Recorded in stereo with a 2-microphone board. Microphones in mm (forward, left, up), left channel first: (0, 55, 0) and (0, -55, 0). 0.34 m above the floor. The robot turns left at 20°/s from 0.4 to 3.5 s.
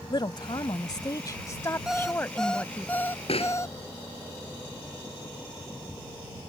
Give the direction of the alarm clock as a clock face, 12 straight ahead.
6 o'clock.